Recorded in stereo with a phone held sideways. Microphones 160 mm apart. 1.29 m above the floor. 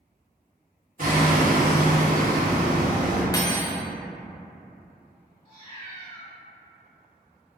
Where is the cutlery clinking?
20° left (ahead or behind), 0.5 m.